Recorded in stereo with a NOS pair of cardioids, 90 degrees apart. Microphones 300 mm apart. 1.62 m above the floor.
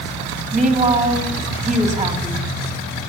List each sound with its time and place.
0.5 s a woman speaking: 25° right, 3.5 m